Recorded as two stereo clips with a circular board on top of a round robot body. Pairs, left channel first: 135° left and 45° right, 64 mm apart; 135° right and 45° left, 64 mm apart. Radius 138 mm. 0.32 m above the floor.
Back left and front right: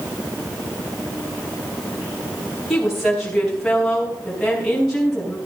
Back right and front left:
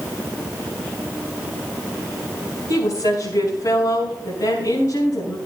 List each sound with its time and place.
2.7 s a woman speaking: 135° right, 4 m